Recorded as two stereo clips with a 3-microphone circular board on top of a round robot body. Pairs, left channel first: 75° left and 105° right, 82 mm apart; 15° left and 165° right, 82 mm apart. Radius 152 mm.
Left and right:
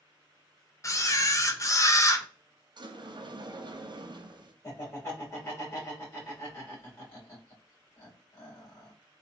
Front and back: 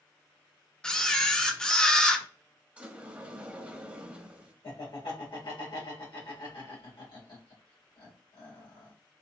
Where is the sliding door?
95° right, 0.8 m.